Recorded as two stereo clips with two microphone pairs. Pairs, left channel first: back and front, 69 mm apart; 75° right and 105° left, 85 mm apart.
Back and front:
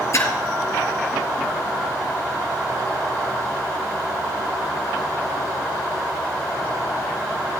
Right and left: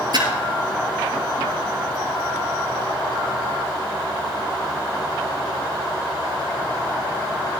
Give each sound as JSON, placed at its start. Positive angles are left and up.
{"t": 0.1, "sound": "a splash", "azimuth_deg": 135, "distance_m": 2.0}